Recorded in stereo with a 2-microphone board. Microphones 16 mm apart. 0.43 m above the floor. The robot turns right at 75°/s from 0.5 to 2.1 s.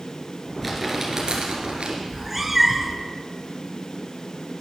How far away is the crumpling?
About 2.5 m.